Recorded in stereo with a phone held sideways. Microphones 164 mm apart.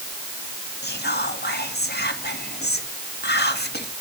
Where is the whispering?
70° left (ahead or behind), 1.7 m.